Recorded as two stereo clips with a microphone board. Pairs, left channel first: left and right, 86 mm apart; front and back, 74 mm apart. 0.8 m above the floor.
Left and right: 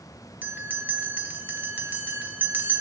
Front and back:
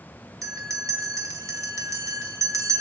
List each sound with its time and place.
0.4 s a bell: 150° right, 1.3 m